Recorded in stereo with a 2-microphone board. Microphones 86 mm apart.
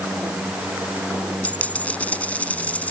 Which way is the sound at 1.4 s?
15° left (ahead or behind).